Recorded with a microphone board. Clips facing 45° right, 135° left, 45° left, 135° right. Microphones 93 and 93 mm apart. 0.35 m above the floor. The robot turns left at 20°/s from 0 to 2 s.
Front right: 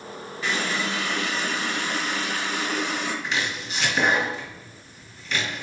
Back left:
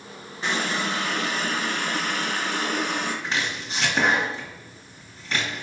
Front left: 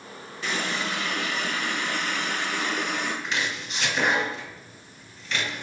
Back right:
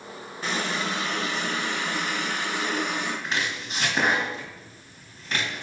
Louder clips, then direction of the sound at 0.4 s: Back left 1 dB, back right 1 dB; 170° right.